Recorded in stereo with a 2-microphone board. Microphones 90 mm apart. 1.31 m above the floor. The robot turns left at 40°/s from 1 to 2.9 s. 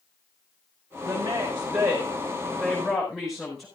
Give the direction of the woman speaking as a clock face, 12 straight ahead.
4 o'clock.